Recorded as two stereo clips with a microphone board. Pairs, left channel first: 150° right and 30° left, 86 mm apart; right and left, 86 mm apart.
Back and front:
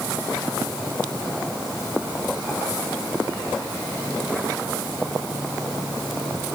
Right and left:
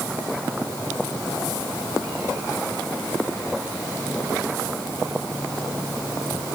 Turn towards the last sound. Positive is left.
No sound to turn to.